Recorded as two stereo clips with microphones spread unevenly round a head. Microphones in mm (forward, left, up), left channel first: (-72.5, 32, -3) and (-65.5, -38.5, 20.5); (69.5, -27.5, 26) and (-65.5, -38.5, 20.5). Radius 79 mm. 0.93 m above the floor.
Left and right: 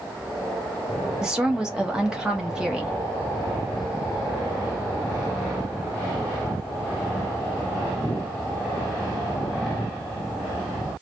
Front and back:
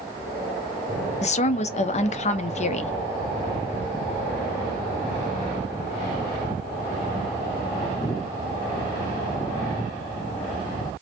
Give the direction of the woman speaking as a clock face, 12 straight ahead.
12 o'clock.